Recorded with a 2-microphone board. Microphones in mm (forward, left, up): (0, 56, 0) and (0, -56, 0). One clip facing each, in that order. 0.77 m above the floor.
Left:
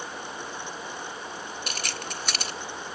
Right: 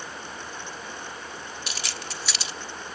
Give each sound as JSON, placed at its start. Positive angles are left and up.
{"t": 1.7, "sound": "keys jangling", "side_deg": 50, "distance_m": 0.9}